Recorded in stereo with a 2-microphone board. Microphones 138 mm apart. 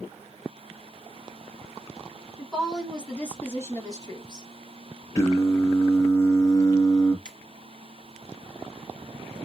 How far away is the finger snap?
About 2 m.